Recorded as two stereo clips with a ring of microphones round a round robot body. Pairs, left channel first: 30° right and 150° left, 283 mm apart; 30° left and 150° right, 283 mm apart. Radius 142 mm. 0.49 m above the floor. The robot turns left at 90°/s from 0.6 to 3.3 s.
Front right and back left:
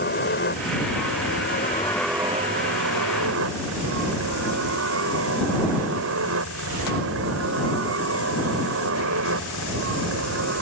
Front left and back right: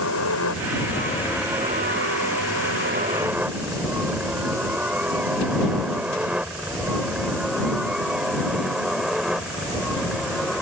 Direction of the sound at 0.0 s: 15° left.